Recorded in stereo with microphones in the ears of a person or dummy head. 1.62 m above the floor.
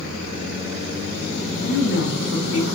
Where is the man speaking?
60° left (ahead or behind), 1.0 m.